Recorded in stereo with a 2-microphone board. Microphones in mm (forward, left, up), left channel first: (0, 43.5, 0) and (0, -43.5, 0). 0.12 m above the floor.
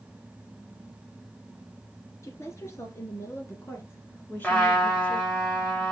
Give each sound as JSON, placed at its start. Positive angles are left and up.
{"t": 2.2, "sound": "a woman speaking", "side_deg": 35, "distance_m": 2.0}
{"t": 4.4, "sound": "a trumpet", "side_deg": 15, "distance_m": 2.0}